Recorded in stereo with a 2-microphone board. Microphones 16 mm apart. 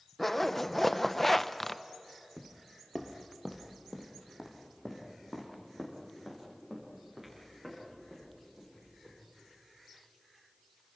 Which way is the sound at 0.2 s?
15° left (ahead or behind).